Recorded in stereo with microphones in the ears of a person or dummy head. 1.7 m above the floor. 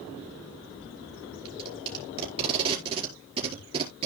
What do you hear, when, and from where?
1.4 s tape being pulled: 35° right (ahead or behind), 4.5 m